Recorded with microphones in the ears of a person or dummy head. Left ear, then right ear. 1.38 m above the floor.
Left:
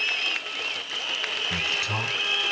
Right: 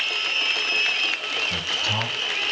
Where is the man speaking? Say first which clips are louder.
Right 2 dB; 50° left (ahead or behind), 4.5 m.